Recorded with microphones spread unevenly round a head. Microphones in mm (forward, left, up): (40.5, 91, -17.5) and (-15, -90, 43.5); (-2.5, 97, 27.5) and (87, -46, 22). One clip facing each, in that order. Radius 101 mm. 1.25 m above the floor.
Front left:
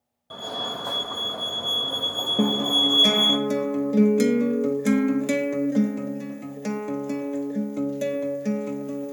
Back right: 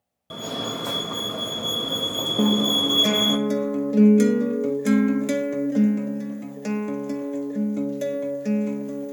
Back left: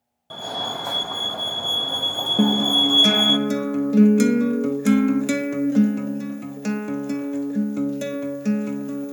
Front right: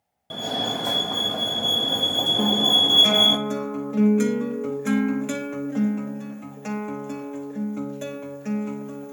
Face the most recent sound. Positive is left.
turn(degrees=175)